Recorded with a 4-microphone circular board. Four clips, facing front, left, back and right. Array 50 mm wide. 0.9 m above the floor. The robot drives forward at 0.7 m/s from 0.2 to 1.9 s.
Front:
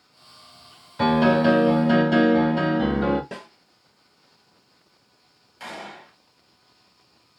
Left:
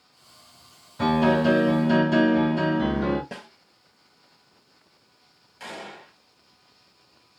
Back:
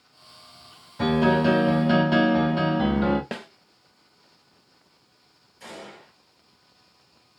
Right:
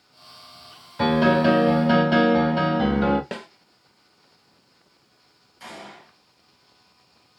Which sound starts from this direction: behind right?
A snare drum, at 3.3 s.